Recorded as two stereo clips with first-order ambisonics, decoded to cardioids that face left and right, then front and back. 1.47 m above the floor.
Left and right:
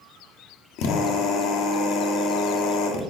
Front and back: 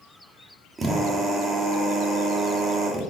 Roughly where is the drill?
Left.